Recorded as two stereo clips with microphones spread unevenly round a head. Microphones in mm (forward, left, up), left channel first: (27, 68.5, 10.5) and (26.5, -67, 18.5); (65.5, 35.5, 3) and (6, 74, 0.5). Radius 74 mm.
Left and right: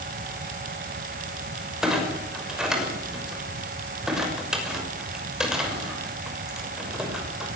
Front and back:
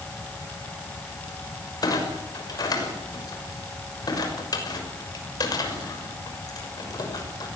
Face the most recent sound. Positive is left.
turn(degrees=-5)